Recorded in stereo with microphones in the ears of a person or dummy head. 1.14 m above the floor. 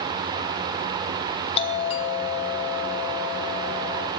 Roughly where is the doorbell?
Left.